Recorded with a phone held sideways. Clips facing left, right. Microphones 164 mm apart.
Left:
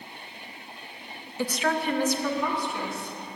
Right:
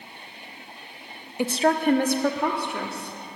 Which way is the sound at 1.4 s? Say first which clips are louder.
Right 5 dB; 15° right (ahead or behind).